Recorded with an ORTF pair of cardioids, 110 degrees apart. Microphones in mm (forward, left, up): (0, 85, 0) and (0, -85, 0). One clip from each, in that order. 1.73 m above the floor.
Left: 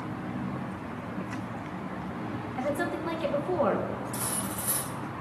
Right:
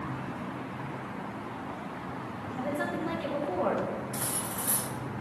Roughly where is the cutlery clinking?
Ahead.